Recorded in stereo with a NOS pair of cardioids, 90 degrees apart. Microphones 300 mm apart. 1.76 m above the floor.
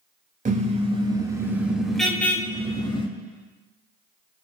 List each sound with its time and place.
0.5 s a car horn: 30° right, 4 m; by 3.1 s 15° left, 5 m